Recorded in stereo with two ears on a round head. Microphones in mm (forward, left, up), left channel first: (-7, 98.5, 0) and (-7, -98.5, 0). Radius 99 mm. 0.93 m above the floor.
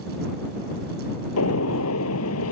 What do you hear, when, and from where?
1.4 s a gunshot: 85° left